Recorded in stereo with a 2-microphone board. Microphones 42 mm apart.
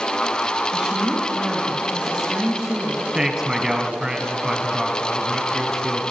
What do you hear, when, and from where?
0.7 s a woman speaking: 30° right (ahead or behind), 2.5 m
3.1 s a man speaking: 15° right (ahead or behind), 1.1 m